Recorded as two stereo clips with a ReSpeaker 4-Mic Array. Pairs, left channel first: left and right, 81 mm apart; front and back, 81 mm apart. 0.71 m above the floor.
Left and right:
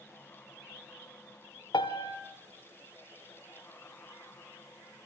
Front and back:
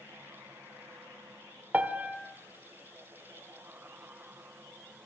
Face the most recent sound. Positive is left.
turn(degrees=110)